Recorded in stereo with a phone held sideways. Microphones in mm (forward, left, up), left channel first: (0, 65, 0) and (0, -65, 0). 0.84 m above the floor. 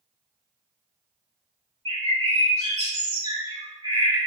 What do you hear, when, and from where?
1.9 s a bird: 50° right (ahead or behind), 2.0 m